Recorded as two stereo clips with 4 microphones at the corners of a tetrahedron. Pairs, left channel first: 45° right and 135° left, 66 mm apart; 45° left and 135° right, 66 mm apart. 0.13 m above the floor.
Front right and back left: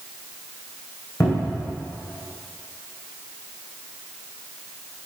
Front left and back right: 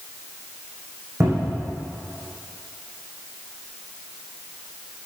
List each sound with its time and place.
1.2 s a cupboard door: 85° right, 5.5 m